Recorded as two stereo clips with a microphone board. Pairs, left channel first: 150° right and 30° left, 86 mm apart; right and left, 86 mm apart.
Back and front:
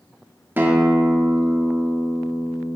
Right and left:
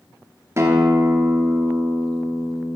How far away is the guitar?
About 1.4 m.